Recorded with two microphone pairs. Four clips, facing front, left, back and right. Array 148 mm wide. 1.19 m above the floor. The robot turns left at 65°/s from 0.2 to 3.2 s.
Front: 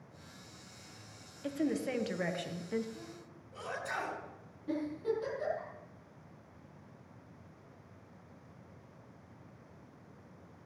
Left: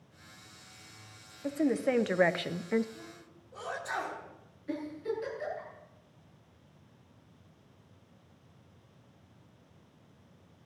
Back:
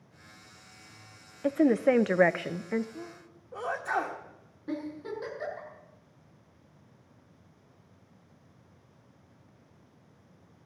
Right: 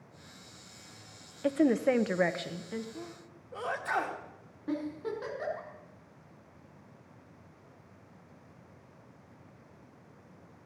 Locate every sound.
1.4 s a woman speaking: 145° right, 0.7 m; by 2.9 s 125° left, 0.7 m
3.0 s a sneeze: 130° right, 2.5 m; by 4.2 s 145° right, 2.5 m
4.7 s a giggle: 100° right, 5.5 m